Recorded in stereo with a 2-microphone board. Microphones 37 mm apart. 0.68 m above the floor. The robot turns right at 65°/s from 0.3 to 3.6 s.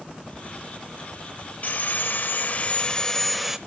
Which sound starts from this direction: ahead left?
Sawing, at 1.6 s.